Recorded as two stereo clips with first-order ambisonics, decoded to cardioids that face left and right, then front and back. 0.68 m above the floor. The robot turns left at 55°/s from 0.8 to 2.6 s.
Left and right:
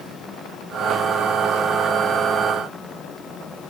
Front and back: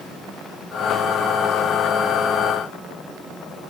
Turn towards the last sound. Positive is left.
No sound to turn to.